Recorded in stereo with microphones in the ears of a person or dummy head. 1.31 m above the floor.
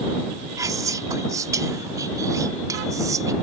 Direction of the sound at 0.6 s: 15° right (ahead or behind).